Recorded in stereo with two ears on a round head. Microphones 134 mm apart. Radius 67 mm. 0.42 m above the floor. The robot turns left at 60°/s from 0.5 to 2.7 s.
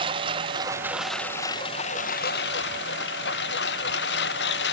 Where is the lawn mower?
145° right; by 4.7 s 85° left.